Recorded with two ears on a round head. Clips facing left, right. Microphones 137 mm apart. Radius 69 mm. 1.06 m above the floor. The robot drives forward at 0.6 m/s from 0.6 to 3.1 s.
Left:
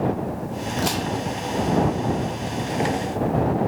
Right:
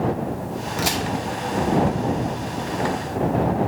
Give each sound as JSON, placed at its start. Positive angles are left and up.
{"t": 0.8, "sound": "a crack", "side_deg": -5, "distance_m": 2.5}